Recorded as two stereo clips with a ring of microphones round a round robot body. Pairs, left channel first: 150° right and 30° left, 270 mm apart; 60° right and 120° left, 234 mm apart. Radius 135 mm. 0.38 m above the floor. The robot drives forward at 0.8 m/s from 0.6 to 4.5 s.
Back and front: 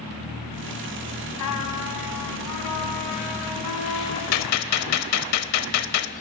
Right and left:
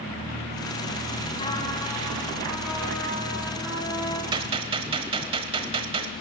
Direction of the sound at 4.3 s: 170° right.